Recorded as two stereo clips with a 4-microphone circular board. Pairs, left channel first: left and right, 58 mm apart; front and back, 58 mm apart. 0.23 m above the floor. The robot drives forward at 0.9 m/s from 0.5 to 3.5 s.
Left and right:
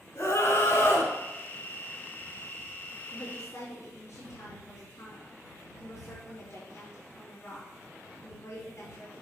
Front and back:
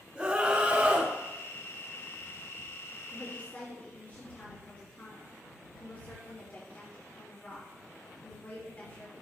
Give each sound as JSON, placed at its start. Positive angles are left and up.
{"t": 0.1, "sound": "a scream", "azimuth_deg": 110, "distance_m": 3.0}
{"t": 3.1, "sound": "a woman speaking", "azimuth_deg": 50, "distance_m": 4.0}